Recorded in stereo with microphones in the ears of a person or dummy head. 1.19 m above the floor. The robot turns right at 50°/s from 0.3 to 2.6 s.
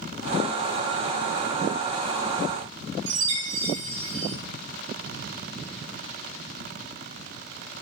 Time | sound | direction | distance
3.1 | a chime | 75° right (ahead or behind) | 0.7 m